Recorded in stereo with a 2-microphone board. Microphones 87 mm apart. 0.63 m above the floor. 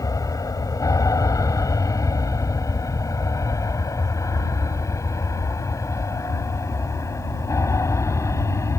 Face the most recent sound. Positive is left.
turn(degrees=35)  # may be behind; listen again after turning